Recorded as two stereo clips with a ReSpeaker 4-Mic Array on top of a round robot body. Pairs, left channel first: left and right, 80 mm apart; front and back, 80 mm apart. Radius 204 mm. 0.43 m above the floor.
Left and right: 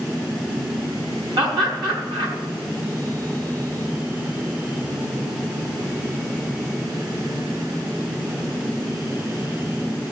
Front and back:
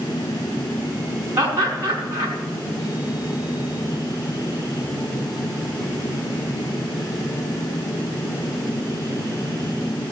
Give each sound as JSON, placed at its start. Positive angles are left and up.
{"t": 1.4, "sound": "laughter", "azimuth_deg": -120, "distance_m": 5.0}